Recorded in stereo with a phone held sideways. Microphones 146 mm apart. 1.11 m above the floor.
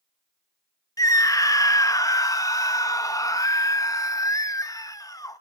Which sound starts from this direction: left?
A scream, at 1.0 s.